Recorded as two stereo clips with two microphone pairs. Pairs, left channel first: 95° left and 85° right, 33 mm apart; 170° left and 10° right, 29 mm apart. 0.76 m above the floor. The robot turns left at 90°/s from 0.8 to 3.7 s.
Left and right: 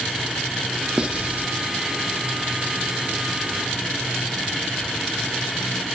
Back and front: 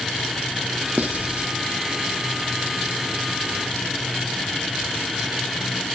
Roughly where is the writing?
Ahead.